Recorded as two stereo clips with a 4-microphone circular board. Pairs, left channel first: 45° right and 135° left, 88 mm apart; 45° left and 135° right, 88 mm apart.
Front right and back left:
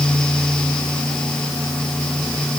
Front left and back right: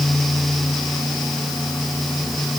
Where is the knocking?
I don't hear knocking.